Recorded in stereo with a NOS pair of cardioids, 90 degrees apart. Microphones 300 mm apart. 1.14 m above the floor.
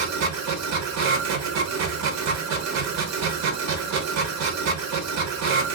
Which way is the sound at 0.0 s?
65° right.